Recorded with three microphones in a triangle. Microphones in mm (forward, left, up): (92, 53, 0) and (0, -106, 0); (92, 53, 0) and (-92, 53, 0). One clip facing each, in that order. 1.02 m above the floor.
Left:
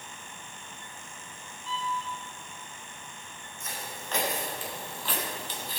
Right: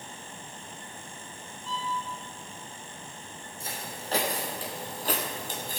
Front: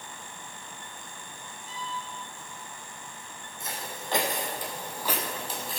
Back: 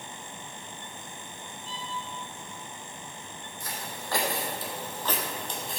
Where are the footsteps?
65° right, 2.5 m; by 5.8 s 90° right, 1.8 m.